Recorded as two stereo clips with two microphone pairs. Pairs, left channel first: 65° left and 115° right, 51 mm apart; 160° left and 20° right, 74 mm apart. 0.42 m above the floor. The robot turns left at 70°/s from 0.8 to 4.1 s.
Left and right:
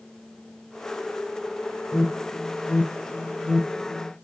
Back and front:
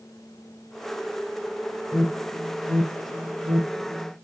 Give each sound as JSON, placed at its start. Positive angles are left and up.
{"t": 1.9, "sound": "an alarm", "azimuth_deg": 80, "distance_m": 1.0}